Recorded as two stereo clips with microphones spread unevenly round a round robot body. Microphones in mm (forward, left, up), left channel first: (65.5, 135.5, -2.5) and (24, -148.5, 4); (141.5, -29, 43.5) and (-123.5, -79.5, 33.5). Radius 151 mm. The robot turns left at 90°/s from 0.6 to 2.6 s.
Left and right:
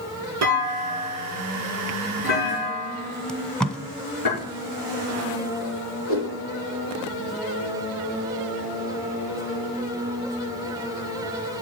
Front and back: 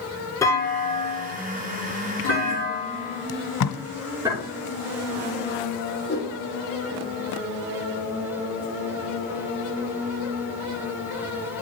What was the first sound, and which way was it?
A clunk, 70° right.